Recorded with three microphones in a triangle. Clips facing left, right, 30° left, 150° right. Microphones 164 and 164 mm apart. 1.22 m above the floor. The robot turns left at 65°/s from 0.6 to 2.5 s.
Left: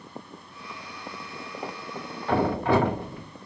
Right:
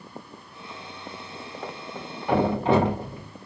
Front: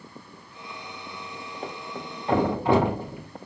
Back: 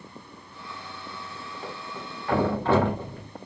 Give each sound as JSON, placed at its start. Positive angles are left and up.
{"t": 1.6, "sound": "a thud", "azimuth_deg": 20, "distance_m": 1.0}